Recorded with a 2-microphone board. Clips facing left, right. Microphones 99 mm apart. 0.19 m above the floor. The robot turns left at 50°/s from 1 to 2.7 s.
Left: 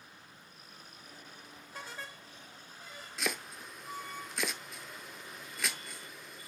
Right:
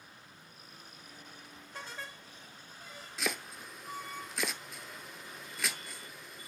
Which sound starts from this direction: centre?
Chopping, at 3.2 s.